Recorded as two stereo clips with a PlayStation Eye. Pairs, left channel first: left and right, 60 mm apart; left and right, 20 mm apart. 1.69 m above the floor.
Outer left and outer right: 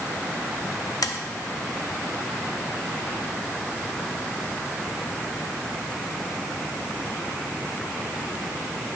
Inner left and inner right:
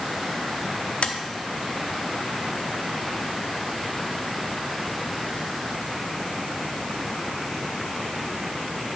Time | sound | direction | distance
1.0 | tapping | 80° left | 0.6 m